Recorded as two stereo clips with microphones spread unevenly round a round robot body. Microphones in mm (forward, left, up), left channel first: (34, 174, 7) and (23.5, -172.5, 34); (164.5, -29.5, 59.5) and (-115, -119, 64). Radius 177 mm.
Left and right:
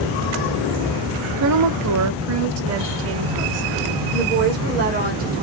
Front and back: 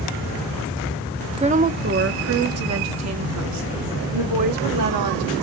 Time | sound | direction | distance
1.4 | a woman speaking | 100° right | 1.2 m